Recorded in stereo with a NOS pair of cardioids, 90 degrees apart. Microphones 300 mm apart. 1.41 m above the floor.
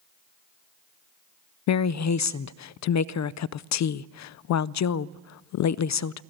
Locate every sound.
1.7 s a woman speaking: 65° left, 0.5 m